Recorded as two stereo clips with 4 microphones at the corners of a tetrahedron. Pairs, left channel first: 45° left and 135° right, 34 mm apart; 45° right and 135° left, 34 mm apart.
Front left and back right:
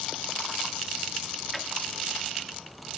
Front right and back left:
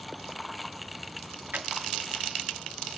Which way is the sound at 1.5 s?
135° left.